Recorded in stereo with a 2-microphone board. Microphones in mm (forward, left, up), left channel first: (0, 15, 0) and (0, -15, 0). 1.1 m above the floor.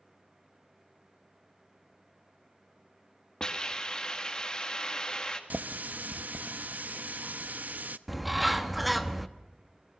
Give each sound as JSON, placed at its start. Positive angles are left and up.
{"t": 3.4, "sound": "a hiss", "side_deg": 25, "distance_m": 2.0}
{"t": 5.5, "sound": "a running tap", "side_deg": -70, "distance_m": 0.7}
{"t": 8.1, "sound": "a bird", "side_deg": 0, "distance_m": 1.0}